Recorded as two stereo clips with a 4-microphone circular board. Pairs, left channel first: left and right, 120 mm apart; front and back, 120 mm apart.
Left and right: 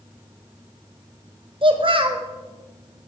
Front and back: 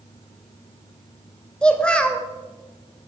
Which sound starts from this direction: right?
A child speaking, at 1.6 s.